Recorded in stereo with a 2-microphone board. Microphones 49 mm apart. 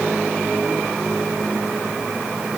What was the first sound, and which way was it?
Only background noise.